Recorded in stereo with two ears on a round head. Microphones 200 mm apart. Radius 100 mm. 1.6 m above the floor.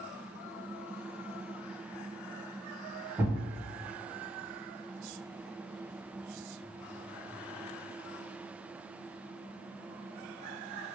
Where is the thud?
5° right (ahead or behind), 1.2 m.